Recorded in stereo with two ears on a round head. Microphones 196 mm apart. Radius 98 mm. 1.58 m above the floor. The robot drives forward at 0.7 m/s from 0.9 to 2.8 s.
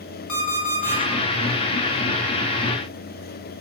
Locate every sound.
0.3 s an alarm clock: 65° left (ahead or behind), 2.5 m